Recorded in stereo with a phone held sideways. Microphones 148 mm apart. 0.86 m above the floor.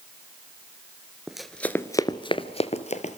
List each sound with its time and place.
1.3 s running footsteps: 5° right (ahead or behind), 1.0 m; by 3.2 s 55° left (ahead or behind), 1.3 m